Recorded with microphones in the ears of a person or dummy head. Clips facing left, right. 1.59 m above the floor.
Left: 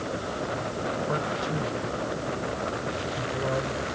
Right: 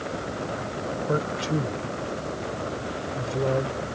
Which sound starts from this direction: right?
A man speaking, at 1.1 s.